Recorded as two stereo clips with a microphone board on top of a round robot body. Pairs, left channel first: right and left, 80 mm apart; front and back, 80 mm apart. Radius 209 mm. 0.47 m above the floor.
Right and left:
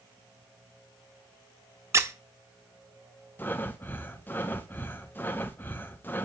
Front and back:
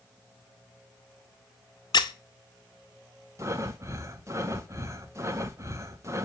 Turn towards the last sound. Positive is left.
turn(degrees=-145)